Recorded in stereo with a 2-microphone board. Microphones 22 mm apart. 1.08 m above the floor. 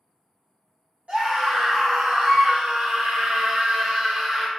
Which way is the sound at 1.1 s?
70° right (ahead or behind).